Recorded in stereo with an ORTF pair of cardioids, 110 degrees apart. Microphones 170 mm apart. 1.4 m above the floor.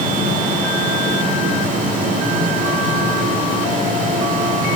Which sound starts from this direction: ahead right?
A fan, at 0.0 s.